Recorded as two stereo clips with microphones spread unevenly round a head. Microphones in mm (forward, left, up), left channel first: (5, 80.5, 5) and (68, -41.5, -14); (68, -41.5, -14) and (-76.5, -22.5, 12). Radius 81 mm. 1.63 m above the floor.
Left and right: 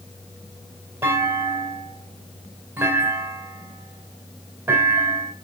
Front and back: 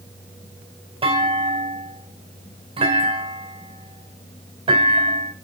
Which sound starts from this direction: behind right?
A clunk, at 1.0 s.